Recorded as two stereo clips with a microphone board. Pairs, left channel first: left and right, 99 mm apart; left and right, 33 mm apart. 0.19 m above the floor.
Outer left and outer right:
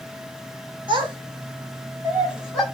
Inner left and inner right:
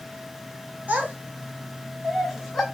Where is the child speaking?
55° right (ahead or behind), 1.4 m; by 2.6 s 5° left (ahead or behind), 0.9 m.